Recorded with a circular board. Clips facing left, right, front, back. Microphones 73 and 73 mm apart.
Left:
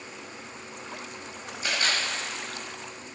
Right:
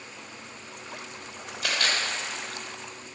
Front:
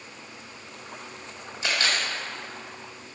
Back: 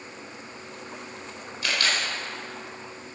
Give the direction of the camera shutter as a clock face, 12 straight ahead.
2 o'clock.